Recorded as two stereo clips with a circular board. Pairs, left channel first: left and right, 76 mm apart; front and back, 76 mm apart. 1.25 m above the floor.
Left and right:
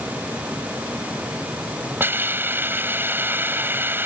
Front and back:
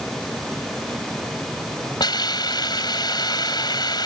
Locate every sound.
2.0 s a hiss: 25° right